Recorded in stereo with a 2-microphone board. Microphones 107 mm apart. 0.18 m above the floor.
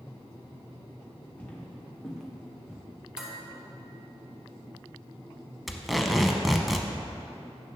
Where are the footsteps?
15° left (ahead or behind), 2 m; by 2.8 s 10° right (ahead or behind), 1.6 m.